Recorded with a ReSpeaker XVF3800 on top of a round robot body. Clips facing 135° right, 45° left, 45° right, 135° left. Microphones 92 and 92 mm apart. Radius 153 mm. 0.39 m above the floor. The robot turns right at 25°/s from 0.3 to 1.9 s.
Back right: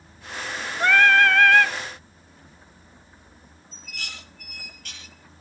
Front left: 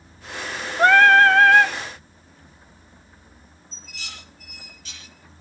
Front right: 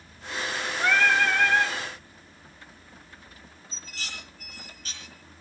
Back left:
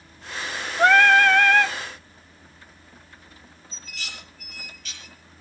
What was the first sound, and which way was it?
Singing, 90° left.